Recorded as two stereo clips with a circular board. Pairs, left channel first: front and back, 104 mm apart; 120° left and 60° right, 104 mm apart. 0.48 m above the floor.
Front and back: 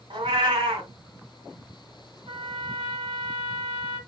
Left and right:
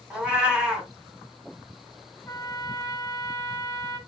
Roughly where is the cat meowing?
Behind right.